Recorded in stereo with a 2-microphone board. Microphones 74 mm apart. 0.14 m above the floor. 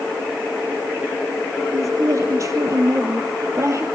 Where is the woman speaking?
45° right (ahead or behind), 4 m.